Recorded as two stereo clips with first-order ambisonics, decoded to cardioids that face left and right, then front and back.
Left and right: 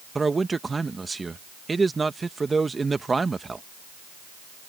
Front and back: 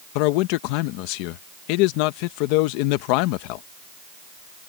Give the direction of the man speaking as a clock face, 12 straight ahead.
12 o'clock.